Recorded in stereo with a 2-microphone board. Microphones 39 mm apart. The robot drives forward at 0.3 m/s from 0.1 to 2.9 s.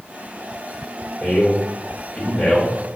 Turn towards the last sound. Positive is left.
turn(degrees=10)  # may be behind; listen again after turning